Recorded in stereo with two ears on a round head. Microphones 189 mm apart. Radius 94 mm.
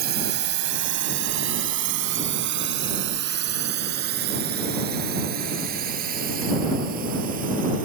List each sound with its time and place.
0.0 s a drone: 50° right (ahead or behind); by 7.9 s 45° right (ahead or behind)